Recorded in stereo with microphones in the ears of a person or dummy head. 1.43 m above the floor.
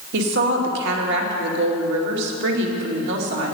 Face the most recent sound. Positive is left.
turn(degrees=-65)  # may be behind; listen again after turning